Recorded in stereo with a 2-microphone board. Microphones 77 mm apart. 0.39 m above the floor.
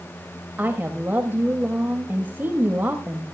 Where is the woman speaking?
25° right (ahead or behind), 1.7 m.